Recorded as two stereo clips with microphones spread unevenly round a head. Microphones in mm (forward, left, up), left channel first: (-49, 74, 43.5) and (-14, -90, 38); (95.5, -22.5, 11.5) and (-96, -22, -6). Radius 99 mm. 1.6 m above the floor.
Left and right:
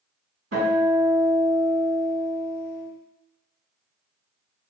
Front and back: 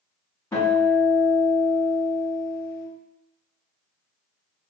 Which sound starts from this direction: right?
A guitar, at 0.5 s.